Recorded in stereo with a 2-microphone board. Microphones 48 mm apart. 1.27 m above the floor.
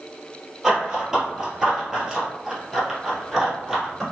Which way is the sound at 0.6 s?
10° right (ahead or behind).